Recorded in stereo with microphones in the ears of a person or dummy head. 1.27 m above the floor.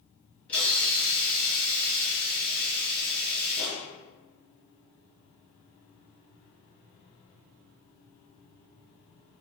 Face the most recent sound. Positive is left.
turn(degrees=10)  # may be behind; listen again after turning